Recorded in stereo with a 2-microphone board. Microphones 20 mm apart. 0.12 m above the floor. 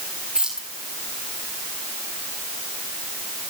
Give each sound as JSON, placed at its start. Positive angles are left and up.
{"t": 0.3, "sound": "keys jangling", "side_deg": -40, "distance_m": 8.0}